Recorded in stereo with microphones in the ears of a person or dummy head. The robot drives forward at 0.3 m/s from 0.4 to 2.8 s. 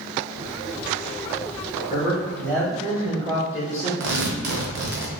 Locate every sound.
1.9 s a man speaking: 20° right (ahead or behind), 1.4 m; by 3.9 s 15° right (ahead or behind), 1.7 m
4.0 s tearing paper: 60° right (ahead or behind), 0.8 m